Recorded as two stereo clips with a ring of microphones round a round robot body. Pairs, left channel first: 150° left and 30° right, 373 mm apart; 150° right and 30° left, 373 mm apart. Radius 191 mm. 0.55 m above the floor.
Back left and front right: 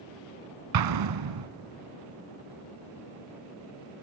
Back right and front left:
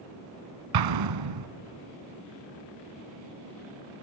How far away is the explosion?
About 0.9 m.